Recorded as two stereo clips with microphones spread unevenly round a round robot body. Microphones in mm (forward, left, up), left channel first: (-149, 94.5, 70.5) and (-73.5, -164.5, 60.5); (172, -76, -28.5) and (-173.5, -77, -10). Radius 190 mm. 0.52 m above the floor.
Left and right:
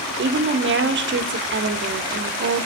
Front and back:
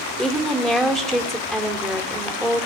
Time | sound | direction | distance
0.2 | a woman speaking | 85° right | 1.2 m